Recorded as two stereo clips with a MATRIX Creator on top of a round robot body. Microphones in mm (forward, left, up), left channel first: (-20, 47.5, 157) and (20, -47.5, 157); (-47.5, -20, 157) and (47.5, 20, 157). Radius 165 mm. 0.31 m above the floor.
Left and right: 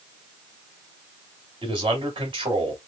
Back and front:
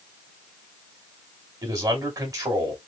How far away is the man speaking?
About 2.5 m.